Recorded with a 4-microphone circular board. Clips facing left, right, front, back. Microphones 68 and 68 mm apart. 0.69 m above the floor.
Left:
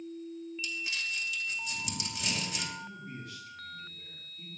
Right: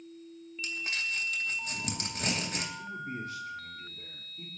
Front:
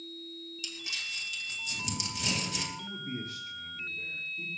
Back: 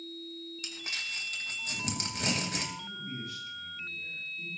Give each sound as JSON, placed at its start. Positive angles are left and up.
{"t": 0.6, "sound": "crumpling", "azimuth_deg": -135, "distance_m": 3.0}
{"t": 2.8, "sound": "a man speaking", "azimuth_deg": -40, "distance_m": 2.5}